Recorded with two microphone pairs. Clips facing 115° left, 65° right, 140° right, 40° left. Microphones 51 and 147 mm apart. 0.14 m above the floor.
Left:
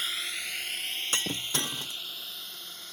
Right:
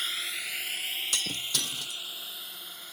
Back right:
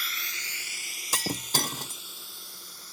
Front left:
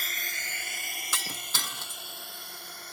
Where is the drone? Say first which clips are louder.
Even, front left 1 dB; 25° left; by 2.9 s 15° left.